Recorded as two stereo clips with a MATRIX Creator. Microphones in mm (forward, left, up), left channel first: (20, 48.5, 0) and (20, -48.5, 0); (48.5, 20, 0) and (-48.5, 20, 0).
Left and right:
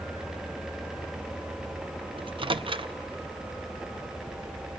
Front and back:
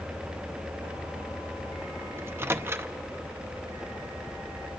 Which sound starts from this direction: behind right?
A microwave, at 2.2 s.